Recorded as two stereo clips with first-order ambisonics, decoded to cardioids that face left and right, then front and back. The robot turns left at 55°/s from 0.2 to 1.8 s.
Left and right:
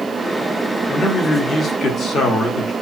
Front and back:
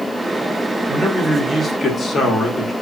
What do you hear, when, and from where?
0.9 s a man speaking: 115° left, 0.9 m; by 2.7 s 65° left, 0.9 m